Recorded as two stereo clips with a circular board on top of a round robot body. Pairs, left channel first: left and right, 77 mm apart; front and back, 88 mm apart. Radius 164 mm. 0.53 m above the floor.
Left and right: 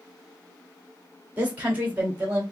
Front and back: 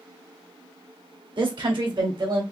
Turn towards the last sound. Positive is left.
turn(degrees=-155)